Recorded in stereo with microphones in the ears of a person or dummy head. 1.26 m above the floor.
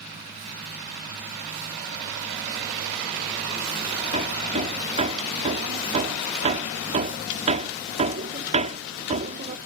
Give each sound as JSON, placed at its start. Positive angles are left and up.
{"t": 4.1, "sound": "hammering", "side_deg": -35}